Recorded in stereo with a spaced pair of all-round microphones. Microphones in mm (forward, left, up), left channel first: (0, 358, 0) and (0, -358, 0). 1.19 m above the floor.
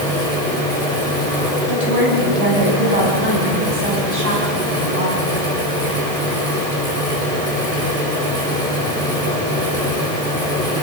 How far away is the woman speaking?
About 7 m.